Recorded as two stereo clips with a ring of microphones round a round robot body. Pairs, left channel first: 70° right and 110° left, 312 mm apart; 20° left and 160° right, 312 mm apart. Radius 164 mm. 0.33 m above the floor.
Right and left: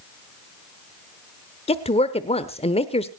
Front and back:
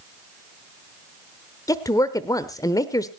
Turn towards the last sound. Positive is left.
turn(degrees=-35)